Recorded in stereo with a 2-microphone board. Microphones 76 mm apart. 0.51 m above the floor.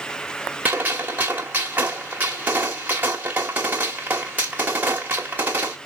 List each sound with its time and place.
0.7 s a gunshot: 25° right (ahead or behind), 1.1 m